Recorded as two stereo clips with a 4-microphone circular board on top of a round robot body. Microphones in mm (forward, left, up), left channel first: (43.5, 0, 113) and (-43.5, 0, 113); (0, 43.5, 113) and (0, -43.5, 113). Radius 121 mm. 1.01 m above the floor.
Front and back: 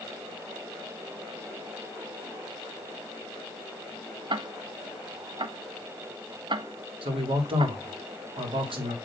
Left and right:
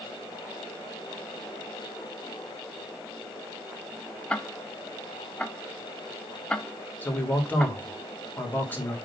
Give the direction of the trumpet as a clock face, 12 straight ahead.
I don't hear a trumpet.